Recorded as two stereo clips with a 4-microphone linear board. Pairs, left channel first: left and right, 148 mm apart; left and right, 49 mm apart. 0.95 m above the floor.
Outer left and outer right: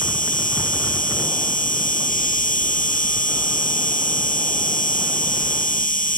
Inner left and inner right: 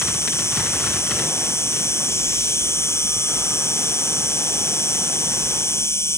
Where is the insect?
65° left (ahead or behind).